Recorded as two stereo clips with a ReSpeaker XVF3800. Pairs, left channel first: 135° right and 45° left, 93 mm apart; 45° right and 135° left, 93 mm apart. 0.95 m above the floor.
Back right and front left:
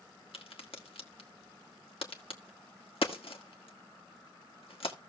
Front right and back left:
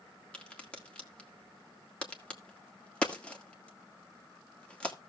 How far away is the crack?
About 1.6 m.